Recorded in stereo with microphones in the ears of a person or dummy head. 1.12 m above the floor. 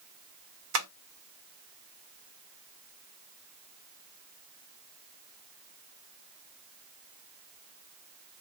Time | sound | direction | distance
0.7 | tapping | 85° right | 0.9 m